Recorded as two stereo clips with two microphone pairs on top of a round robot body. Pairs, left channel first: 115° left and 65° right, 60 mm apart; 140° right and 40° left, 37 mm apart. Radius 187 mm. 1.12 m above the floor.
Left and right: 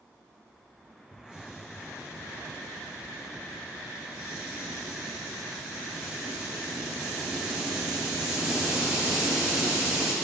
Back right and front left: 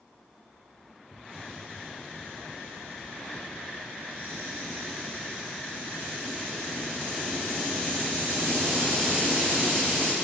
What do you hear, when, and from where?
1.1 s a hiss: 10° left, 6.5 m